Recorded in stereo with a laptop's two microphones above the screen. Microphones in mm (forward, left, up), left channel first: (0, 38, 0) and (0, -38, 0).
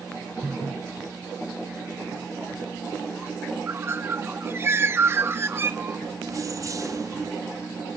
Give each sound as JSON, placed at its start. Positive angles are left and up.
{"t": 3.7, "sound": "a bird", "side_deg": -35, "distance_m": 1.1}
{"t": 6.3, "sound": "keys jangling", "side_deg": -45, "distance_m": 1.0}